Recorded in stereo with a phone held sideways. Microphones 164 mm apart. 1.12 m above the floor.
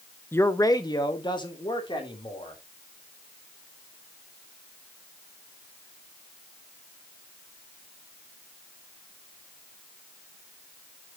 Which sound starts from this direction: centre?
A man speaking, at 0.3 s.